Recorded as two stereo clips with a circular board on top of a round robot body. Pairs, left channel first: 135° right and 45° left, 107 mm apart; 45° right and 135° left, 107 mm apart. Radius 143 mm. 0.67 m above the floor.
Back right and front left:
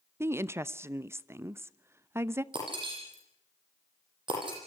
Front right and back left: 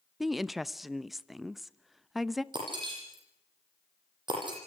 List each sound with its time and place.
0.2 s a woman speaking: 50° left, 1.0 m
2.5 s breaking glass: 90° left, 10 m